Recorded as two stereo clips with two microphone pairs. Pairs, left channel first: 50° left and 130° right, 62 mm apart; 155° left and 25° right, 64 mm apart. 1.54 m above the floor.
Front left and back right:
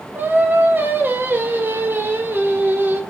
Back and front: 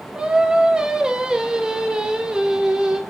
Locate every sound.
0.1 s singing: 100° right, 0.7 m